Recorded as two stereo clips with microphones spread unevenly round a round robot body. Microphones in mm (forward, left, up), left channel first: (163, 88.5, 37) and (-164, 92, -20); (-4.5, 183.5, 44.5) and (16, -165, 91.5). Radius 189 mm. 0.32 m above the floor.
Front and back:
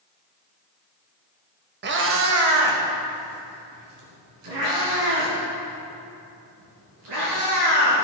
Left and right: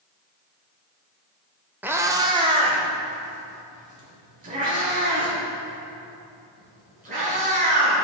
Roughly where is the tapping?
I don't hear tapping.